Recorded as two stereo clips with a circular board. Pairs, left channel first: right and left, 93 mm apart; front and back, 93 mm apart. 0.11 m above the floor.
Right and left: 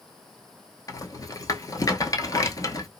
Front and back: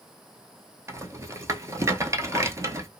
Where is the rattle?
130° right, 0.7 m.